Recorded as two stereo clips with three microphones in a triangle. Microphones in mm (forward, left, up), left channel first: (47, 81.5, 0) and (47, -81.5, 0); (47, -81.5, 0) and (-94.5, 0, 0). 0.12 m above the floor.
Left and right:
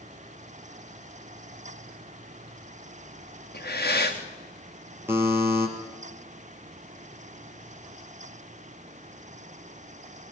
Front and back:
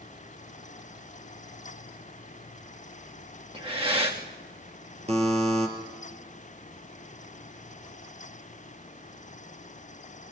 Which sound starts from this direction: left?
Breathing, at 3.5 s.